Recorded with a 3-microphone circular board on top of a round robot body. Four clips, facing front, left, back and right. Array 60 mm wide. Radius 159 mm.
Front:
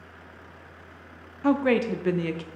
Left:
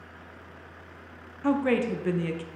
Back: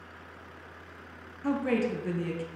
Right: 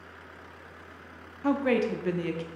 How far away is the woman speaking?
About 0.9 m.